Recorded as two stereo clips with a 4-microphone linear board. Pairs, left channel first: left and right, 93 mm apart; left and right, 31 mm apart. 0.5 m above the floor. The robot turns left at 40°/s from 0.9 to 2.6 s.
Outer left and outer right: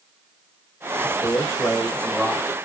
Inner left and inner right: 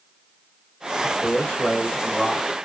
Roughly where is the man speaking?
Ahead left.